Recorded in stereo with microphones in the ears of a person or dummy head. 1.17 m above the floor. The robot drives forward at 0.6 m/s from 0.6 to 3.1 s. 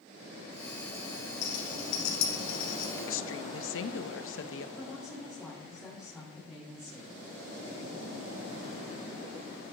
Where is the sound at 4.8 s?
Centre (ahead or behind), 4 m.